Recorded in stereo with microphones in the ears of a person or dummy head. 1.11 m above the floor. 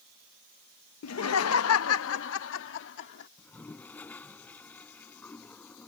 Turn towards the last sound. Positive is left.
turn(degrees=10)  # may be behind; listen again after turning